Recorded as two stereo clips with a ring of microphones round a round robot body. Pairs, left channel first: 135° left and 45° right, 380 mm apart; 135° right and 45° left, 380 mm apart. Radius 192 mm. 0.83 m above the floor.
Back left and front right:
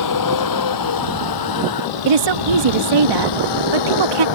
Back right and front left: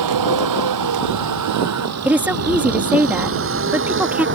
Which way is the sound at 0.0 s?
90° left.